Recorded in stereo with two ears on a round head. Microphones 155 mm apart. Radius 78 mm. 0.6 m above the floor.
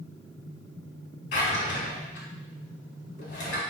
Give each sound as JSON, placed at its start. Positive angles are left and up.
{"t": 1.3, "sound": "a drawer", "side_deg": 70, "distance_m": 1.4}